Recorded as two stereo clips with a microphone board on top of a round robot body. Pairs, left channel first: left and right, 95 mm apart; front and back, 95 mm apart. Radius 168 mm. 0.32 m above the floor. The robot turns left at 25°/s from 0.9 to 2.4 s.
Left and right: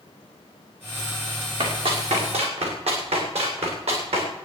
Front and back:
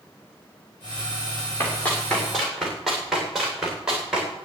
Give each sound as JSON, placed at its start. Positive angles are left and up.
{"t": 1.6, "sound": "running footsteps", "azimuth_deg": -65, "distance_m": 7.0}